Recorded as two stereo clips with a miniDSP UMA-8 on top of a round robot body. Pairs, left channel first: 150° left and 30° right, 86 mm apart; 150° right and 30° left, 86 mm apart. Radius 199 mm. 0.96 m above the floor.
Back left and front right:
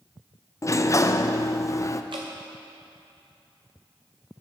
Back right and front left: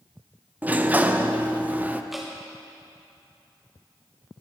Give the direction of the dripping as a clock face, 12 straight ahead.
2 o'clock.